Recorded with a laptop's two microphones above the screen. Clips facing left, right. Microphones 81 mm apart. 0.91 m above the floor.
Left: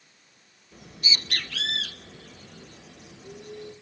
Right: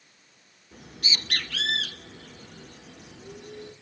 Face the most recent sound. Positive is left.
turn(degrees=-75)  # may be behind; listen again after turning